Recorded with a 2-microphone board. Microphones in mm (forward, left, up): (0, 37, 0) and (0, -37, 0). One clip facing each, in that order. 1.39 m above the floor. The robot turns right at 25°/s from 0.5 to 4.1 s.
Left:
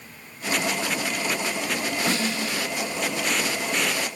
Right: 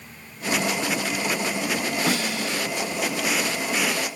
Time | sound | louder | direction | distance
2.1 | a snare drum | right 1 dB | 10° right (ahead or behind) | 9 m